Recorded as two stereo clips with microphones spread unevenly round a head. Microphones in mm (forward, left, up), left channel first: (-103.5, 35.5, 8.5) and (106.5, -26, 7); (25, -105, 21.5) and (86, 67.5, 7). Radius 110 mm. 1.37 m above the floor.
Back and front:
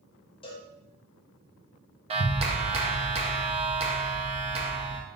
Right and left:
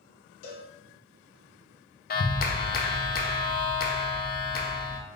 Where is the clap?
80° right, 0.5 m.